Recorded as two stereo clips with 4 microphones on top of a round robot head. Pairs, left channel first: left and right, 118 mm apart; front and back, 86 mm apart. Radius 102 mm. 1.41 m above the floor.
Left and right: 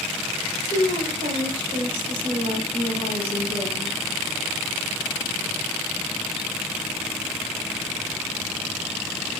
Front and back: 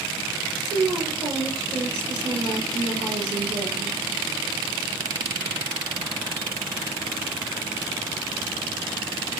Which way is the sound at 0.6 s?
130° right.